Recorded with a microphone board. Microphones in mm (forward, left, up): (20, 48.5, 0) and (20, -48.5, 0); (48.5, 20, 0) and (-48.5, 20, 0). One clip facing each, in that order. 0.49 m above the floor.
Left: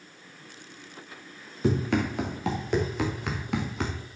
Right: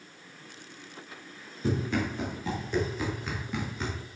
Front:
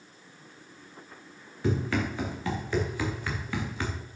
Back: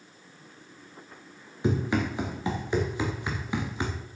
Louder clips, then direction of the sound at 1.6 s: Left 4 dB, back 2 dB; 110° left.